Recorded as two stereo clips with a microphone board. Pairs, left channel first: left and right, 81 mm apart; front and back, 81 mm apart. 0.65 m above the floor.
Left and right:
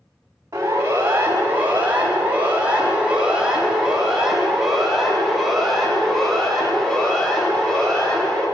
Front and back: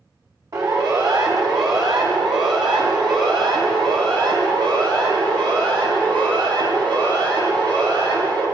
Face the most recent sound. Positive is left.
turn(degrees=170)